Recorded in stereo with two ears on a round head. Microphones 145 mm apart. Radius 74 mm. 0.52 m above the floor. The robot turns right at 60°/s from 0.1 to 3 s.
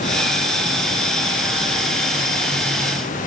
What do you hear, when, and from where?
Only background noise.